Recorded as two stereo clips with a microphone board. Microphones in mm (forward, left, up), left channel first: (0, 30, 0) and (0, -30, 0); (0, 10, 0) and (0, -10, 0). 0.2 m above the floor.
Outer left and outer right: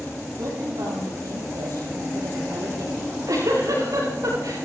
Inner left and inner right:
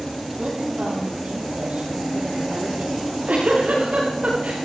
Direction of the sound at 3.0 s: 75° right (ahead or behind).